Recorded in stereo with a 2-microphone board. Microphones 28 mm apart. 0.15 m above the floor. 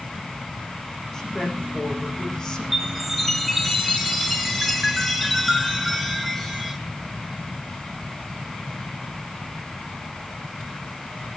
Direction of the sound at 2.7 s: 5° right (ahead or behind).